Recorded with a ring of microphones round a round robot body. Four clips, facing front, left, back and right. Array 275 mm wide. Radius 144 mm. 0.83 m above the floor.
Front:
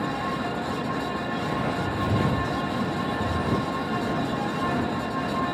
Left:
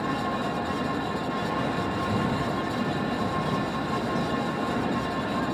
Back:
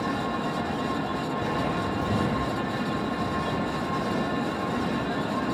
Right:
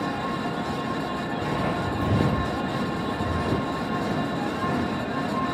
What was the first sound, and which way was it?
Footsteps, 110° right.